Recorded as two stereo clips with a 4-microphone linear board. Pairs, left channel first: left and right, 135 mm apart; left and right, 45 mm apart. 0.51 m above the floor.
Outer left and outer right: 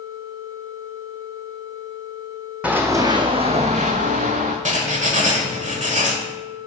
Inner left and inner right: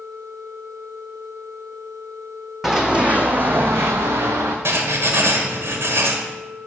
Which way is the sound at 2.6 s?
10° right (ahead or behind).